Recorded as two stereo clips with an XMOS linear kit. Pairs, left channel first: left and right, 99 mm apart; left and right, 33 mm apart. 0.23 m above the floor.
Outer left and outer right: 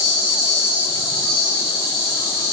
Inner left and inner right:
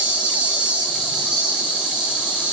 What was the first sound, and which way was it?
An insect, 25° right (ahead or behind).